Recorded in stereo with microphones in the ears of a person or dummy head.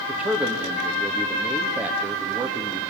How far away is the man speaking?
About 2.5 m.